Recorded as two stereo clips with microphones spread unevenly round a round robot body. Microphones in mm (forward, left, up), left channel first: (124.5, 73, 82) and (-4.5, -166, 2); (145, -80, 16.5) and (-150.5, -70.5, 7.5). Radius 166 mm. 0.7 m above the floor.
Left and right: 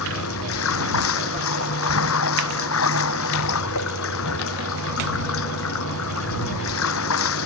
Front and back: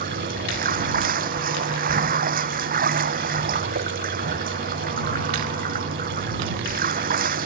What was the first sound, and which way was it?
Running water, 110° left.